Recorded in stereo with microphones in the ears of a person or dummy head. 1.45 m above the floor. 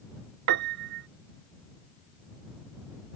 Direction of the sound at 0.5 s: 70° right (ahead or behind).